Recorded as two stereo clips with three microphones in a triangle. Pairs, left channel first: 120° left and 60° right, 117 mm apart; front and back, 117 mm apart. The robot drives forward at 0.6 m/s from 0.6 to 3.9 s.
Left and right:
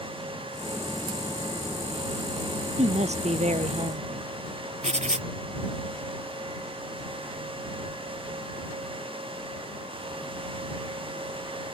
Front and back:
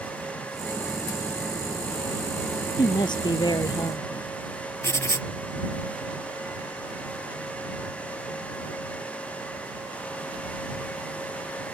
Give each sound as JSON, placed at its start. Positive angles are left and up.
{"t": 2.8, "sound": "a woman speaking", "azimuth_deg": -50}
{"t": 4.8, "sound": "writing", "azimuth_deg": -65}